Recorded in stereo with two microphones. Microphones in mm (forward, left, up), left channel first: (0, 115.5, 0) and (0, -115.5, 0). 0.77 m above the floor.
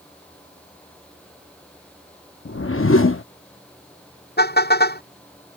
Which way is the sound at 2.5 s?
60° left (ahead or behind).